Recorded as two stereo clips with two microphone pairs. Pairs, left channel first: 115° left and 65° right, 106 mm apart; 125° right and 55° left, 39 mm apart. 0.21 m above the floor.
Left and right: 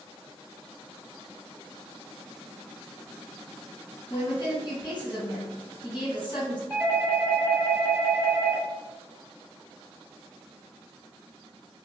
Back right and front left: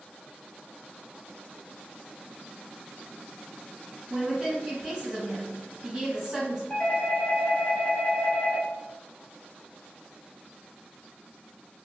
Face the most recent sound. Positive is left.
turn(degrees=-150)